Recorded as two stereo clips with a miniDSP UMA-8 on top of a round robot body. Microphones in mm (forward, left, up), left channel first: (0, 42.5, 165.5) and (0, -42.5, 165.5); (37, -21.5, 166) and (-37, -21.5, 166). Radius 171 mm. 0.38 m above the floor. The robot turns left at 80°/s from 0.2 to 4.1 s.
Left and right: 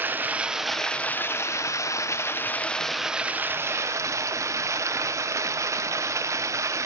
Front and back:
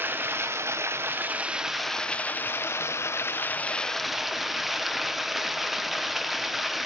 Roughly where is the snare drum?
I don't hear a snare drum.